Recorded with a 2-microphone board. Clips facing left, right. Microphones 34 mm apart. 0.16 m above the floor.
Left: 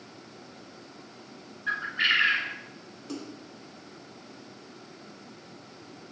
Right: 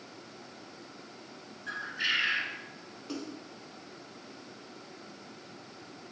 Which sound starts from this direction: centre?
A splash, at 3.1 s.